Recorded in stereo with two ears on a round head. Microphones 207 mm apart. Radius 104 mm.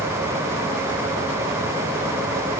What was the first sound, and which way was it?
Only background noise.